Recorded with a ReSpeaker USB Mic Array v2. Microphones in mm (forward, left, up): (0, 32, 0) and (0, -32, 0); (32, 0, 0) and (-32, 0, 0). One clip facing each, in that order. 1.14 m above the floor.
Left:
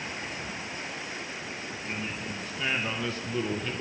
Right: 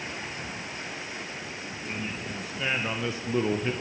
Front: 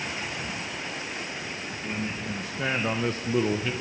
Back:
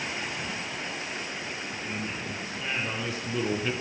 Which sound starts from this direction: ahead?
A man speaking, at 1.8 s.